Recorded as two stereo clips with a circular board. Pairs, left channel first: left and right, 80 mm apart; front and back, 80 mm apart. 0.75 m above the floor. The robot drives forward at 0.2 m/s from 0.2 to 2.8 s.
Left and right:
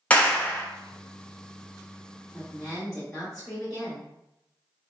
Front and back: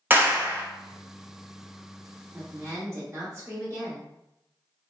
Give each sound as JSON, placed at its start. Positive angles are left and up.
{"t": 0.1, "sound": "a clap", "azimuth_deg": 145, "distance_m": 0.6}
{"t": 2.3, "sound": "a woman speaking", "azimuth_deg": 160, "distance_m": 0.9}